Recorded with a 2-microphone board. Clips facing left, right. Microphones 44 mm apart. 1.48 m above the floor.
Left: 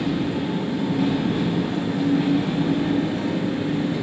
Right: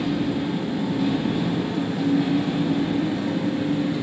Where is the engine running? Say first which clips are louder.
Even; 45° left (ahead or behind), 1.7 m.